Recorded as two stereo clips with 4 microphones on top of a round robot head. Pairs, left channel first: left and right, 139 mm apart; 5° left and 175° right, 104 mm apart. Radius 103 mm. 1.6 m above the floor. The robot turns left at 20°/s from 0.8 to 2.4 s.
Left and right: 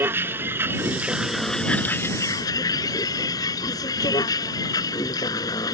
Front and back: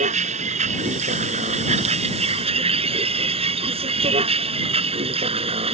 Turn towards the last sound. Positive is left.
turn(degrees=160)